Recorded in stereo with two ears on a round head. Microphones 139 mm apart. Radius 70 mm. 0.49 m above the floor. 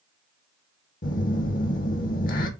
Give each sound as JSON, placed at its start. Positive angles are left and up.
{"t": 1.0, "sound": "a phone buzzing", "side_deg": 55, "distance_m": 0.5}